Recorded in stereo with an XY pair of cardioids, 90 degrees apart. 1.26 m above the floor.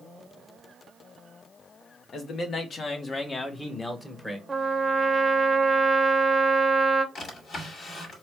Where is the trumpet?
20° right, 0.8 m.